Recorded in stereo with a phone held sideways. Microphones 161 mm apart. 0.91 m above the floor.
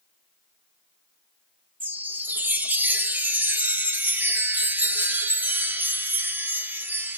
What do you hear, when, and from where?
1.8 s a chime: 10° right (ahead or behind), 0.7 m